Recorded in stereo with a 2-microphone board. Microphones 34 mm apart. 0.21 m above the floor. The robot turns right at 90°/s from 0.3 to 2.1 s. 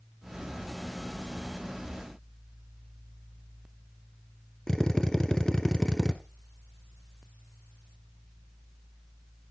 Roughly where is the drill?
Centre.